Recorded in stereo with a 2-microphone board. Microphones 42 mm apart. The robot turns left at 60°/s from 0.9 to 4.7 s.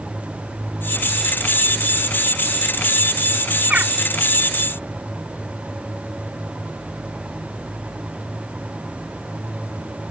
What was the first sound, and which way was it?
A bird, 30° right (ahead or behind).